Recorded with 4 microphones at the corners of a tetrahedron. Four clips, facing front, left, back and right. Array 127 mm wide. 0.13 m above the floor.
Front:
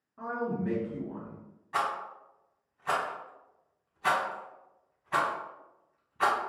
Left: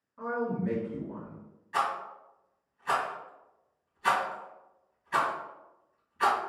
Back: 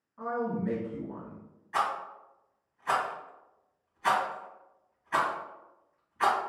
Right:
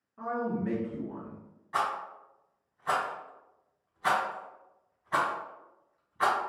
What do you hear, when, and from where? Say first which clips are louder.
0.2 s a man speaking: even, back 1 dB; 40° right, 1.3 m
1.7 s a rattle: left 1 dB, back 1 dB; 50° right, 1.5 m